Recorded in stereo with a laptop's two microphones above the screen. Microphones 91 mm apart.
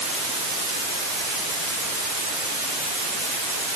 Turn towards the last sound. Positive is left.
No sound to turn to.